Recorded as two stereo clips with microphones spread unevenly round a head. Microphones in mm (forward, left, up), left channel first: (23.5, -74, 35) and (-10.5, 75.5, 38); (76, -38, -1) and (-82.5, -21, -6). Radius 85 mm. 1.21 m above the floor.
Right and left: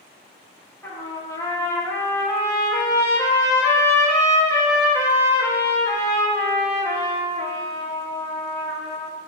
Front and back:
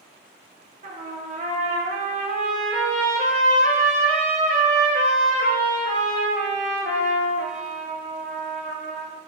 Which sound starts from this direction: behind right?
A trumpet, at 0.8 s.